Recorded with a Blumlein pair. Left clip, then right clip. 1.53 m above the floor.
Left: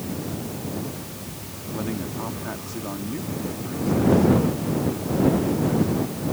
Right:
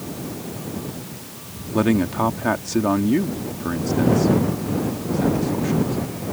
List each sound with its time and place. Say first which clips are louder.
1.7 s a man speaking: right 11 dB; 30° right